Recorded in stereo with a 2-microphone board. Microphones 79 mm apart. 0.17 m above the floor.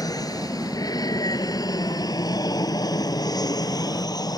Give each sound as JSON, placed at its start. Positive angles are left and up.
{"t": 0.0, "sound": "an aircraft", "side_deg": 50}